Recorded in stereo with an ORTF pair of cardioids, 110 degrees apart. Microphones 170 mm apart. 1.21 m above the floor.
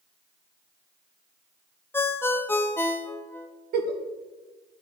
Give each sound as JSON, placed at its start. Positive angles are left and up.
{"t": 1.9, "sound": "a ringtone", "azimuth_deg": 15, "distance_m": 0.6}
{"t": 3.7, "sound": "a giggle", "azimuth_deg": -70, "distance_m": 1.2}